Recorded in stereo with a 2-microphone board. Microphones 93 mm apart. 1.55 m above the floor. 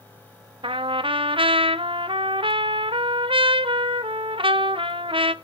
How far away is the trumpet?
About 0.9 m.